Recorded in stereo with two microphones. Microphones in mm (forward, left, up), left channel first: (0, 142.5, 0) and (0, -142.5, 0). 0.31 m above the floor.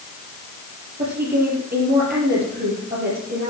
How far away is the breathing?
No breathing in this recording.